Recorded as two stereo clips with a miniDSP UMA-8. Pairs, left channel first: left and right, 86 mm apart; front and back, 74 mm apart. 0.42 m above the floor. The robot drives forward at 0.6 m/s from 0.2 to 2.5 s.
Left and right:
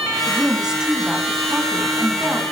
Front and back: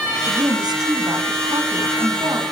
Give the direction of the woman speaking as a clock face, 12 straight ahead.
6 o'clock.